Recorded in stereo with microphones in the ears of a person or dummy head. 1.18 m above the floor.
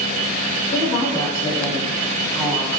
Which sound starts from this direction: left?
A woman speaking, at 0.7 s.